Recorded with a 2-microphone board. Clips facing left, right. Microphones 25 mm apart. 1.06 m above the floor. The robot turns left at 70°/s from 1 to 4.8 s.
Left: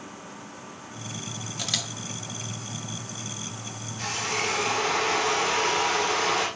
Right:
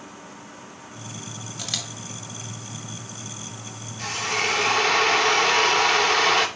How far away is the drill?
About 2 m.